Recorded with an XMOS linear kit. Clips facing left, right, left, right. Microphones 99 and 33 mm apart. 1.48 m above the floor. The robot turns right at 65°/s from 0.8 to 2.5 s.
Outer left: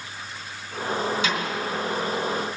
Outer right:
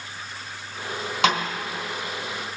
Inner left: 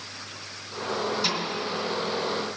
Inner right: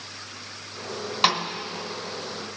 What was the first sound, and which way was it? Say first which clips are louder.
A snare drum: outer right 5 dB, inner right 6 dB; 65° right (ahead or behind).